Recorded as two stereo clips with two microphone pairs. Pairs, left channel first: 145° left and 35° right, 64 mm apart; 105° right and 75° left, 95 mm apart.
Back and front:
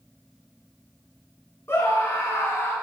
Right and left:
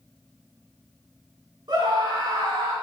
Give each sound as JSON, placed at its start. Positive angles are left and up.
{"t": 1.7, "sound": "a scream", "azimuth_deg": 105, "distance_m": 3.5}